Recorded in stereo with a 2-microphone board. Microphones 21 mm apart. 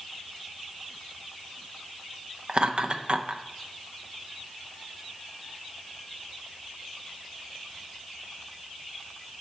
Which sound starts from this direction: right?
Laughter, at 2.5 s.